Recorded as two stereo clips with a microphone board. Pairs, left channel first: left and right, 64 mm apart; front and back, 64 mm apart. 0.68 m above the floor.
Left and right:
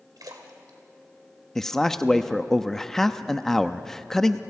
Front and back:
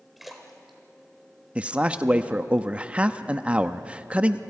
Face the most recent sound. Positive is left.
turn(degrees=155)